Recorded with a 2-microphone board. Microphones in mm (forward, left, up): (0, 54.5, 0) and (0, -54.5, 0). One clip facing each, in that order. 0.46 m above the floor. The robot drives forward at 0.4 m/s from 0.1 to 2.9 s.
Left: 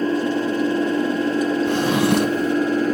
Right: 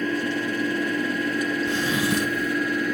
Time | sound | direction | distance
0.0 | an engine running | 35° left (ahead or behind) | ?
1.7 | a drawer | 65° left (ahead or behind) | ?